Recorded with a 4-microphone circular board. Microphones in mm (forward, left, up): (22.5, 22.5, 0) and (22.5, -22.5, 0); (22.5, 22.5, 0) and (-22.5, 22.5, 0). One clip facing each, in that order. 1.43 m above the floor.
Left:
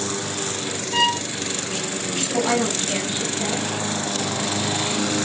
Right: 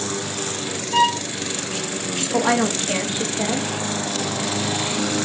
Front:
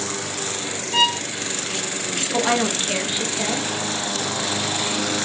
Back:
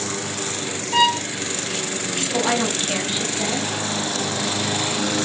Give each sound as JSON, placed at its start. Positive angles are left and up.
{"t": 0.9, "sound": "a violin", "azimuth_deg": 180, "distance_m": 0.9}
{"t": 2.3, "sound": "a woman speaking", "azimuth_deg": -80, "distance_m": 0.7}